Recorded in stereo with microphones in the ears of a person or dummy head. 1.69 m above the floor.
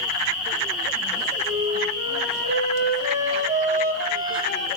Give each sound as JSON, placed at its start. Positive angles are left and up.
{"t": 1.4, "sound": "a flute", "side_deg": -35, "distance_m": 4.5}